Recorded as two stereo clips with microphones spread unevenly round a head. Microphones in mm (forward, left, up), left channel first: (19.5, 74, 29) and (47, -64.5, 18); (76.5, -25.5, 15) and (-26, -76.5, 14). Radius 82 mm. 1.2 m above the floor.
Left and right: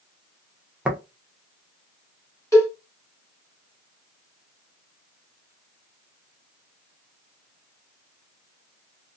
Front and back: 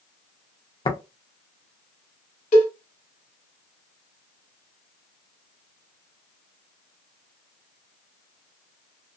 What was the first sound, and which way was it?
Tapping, 5° left.